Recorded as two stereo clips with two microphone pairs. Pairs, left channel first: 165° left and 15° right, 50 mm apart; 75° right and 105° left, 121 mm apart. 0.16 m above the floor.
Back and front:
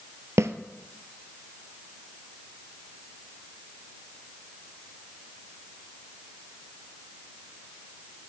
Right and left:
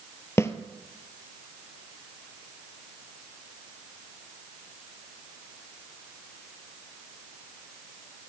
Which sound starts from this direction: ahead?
A snare drum, at 0.4 s.